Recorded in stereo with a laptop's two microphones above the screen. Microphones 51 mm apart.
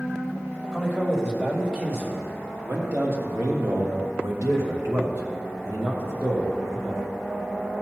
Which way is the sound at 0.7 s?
35° right (ahead or behind).